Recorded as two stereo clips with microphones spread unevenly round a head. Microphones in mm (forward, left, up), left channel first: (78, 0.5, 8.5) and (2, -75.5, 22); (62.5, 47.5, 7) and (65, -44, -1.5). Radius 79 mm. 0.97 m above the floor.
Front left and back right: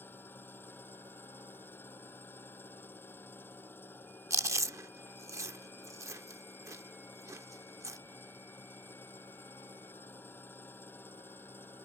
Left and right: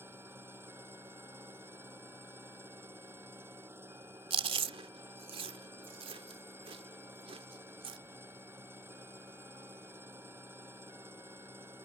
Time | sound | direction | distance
0.0 | an engine running | 25° right | ?
4.3 | chewing | 80° right | ?